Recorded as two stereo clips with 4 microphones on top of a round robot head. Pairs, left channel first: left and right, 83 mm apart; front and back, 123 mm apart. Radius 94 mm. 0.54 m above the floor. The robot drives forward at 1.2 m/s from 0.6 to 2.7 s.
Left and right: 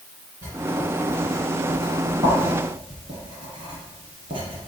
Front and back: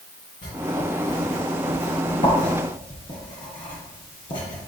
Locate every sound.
0.4 s writing: 35° right, 5 m; by 4.6 s 60° right, 3 m